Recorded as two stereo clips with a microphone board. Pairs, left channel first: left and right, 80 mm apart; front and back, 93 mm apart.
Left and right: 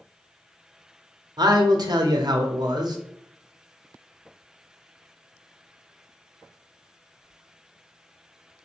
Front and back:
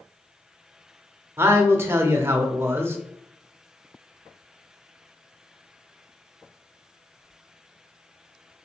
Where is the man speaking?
115° right, 0.7 m.